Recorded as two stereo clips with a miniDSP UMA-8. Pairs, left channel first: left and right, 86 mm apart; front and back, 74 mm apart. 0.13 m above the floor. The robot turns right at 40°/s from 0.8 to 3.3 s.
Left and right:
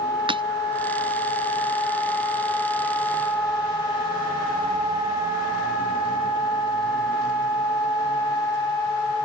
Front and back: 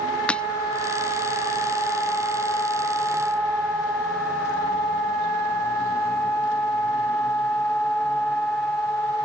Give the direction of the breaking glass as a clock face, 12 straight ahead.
3 o'clock.